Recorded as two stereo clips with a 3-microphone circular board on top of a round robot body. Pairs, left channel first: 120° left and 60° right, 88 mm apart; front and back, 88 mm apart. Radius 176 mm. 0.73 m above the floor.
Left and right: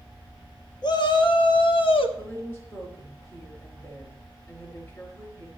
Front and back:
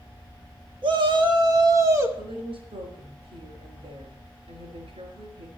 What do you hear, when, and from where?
0.8 s a shout: 155° left, 1.6 m; by 2.1 s 120° left, 1.3 m
2.2 s a woman speaking: 175° right, 3 m